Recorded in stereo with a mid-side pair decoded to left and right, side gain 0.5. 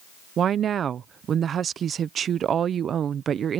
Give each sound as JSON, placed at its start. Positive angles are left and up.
{"t": 0.4, "sound": "a woman speaking", "azimuth_deg": -50}